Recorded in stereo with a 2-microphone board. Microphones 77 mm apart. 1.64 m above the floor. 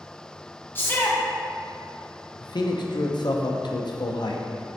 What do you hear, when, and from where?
0.8 s a shout: 30° left (ahead or behind), 1.0 m
2.4 s a man speaking: 70° left (ahead or behind), 0.7 m